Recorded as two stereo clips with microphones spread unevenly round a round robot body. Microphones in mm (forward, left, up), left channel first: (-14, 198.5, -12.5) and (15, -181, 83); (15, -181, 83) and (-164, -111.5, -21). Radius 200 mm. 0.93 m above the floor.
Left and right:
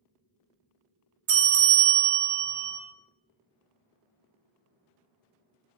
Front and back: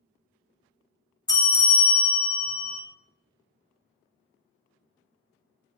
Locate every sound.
1.3 s a bell: 80° right, 0.5 m